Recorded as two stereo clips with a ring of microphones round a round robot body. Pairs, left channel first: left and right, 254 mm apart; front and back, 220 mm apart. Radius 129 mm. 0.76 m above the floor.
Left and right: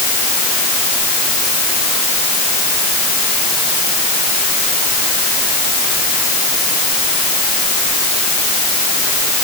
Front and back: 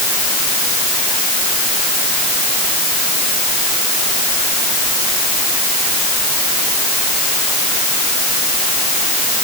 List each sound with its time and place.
Only background noise.